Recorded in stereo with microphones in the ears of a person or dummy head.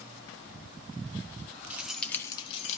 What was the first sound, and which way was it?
Keys jangling, 5° right (ahead or behind).